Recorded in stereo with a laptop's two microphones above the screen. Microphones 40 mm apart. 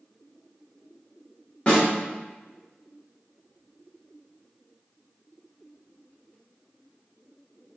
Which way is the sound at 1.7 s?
25° left (ahead or behind).